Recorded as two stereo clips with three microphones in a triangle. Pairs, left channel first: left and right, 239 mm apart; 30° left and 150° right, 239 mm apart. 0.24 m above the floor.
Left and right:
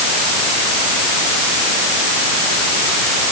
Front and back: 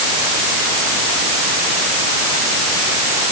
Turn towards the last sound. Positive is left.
No sound to turn to.